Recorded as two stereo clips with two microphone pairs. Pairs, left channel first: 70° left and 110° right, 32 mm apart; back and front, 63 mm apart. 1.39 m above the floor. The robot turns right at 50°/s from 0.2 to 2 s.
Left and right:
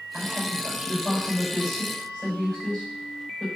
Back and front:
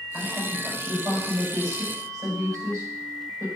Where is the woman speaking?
85° right, 5 m; by 3.5 s 5° left, 5 m.